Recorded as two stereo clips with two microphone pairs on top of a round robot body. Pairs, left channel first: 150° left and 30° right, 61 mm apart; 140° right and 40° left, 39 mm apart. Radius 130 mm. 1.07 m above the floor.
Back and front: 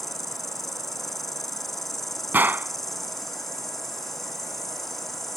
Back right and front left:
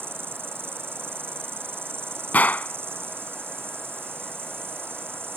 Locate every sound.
0.0 s an insect: 65° left
2.3 s a gunshot: 95° right